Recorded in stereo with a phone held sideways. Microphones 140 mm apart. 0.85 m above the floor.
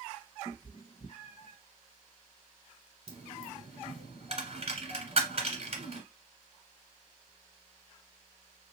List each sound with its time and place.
0.5 s a cat meowing: 35° left (ahead or behind), 1.4 m; by 1.6 s 50° left (ahead or behind), 1.1 m
3.1 s a dropped coin: 45° right (ahead or behind), 1.4 m